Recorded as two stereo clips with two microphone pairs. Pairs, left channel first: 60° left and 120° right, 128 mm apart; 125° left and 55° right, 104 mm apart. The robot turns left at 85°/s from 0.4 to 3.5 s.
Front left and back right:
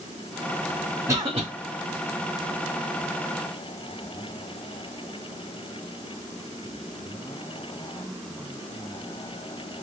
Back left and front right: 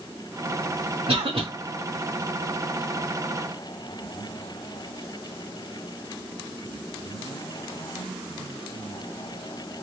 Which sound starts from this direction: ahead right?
A cough, at 1.1 s.